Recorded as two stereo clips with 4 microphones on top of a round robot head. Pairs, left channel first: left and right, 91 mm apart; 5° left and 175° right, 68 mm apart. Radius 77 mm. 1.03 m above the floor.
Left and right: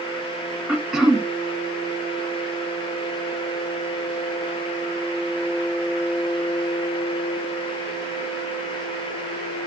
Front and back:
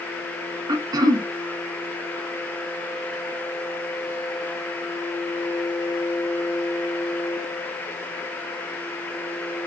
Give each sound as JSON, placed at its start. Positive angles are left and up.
{"t": 0.7, "sound": "throat clearing", "azimuth_deg": -175, "distance_m": 0.7}